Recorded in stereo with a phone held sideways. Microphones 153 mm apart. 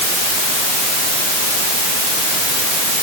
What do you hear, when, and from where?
Only background noise.